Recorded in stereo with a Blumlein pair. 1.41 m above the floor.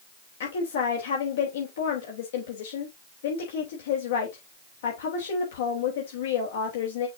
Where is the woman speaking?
60° left, 3 m.